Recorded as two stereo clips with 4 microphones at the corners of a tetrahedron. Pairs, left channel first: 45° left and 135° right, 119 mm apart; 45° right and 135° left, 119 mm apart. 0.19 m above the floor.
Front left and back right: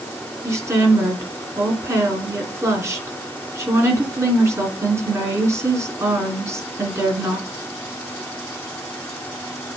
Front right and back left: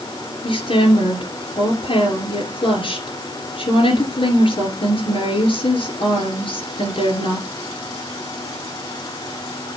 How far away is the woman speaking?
About 2.5 m.